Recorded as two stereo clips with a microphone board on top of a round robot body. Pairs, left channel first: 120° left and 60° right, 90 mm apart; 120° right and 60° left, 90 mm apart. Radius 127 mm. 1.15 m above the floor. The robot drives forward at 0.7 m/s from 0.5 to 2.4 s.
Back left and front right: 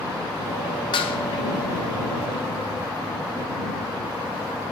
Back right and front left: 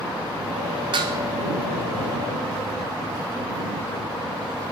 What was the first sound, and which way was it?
Dishes clattering, 90° left.